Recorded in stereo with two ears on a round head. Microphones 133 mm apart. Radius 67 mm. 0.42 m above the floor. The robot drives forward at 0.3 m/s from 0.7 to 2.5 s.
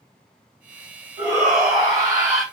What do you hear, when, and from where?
1.2 s a shout: 5° right (ahead or behind), 2.5 m